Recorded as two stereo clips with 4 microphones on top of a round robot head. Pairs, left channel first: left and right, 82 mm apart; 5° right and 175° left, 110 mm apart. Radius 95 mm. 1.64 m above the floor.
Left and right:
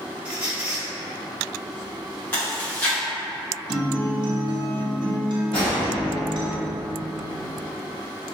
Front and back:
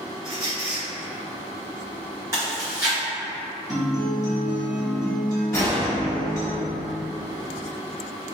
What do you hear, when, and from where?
0.2 s a squeak: 110° right, 1.5 m
2.3 s chewing: 135° left, 1.0 m
3.7 s a guitar: 120° right, 0.6 m
5.5 s a gunshot: 55° left, 1.3 m